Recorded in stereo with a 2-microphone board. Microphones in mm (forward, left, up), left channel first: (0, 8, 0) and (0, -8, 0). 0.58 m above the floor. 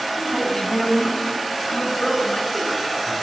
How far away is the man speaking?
About 3.5 m.